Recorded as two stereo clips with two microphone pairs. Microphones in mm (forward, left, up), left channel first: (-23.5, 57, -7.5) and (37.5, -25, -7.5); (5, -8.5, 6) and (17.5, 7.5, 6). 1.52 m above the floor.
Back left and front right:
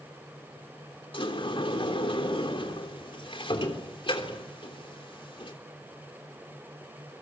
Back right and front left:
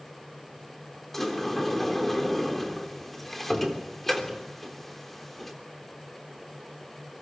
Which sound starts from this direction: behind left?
A sliding door, at 1.1 s.